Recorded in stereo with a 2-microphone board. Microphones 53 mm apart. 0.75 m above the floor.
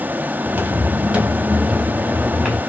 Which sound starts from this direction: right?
Footsteps, at 0.5 s.